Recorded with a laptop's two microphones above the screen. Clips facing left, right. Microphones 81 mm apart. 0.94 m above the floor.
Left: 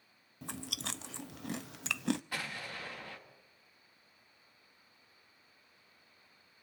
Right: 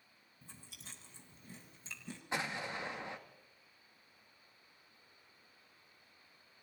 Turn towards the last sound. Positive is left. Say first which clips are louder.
# right 3 dB
turn(degrees=-20)  # may be behind; listen again after turning